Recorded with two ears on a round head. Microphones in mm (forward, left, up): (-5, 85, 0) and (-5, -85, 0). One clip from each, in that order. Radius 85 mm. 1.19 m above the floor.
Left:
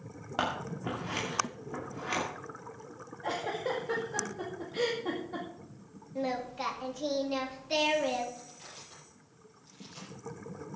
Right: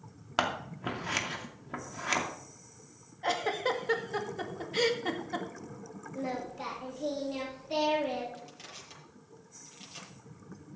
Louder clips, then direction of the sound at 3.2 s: Right 3 dB; 60° right (ahead or behind).